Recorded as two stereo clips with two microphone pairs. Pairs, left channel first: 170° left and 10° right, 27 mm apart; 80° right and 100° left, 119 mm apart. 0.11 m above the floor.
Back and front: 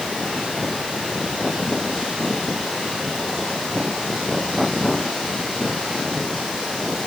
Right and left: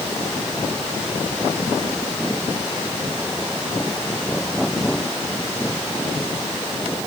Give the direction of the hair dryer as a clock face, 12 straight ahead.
No hair dryer in this recording.